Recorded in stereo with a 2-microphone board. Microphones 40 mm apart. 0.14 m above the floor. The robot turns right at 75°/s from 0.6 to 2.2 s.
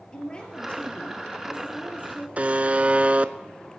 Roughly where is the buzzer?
Right.